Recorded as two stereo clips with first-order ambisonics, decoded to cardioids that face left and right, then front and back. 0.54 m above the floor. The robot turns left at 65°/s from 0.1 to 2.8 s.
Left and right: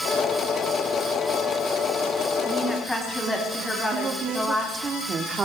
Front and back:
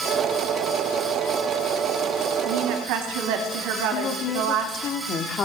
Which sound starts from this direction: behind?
A woman speaking, at 2.5 s.